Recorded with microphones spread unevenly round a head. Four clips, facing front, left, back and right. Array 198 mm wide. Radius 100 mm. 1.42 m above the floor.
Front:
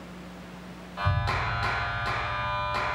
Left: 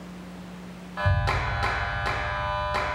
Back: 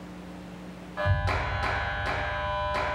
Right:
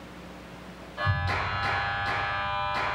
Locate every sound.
1.0 s a clap: 85° left, 1.4 m